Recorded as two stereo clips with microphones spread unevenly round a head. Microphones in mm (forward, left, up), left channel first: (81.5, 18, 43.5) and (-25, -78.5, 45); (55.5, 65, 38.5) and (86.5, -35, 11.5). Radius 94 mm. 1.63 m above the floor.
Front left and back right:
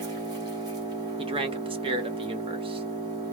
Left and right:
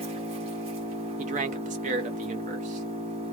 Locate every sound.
0.0 s an engine running: 95° right, 1.1 m
1.2 s a man speaking: 85° right, 0.9 m